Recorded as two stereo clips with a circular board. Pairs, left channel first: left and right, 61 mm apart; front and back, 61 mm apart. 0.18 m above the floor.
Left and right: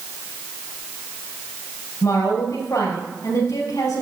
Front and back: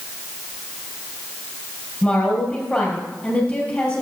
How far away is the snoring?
No snoring in this recording.